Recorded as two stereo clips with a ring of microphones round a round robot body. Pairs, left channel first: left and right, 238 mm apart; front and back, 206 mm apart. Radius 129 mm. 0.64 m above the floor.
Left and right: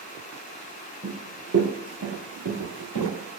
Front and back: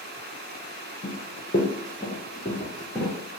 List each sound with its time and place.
1.0 s running footsteps: 35° right, 0.8 m; by 3.1 s 95° right, 1.6 m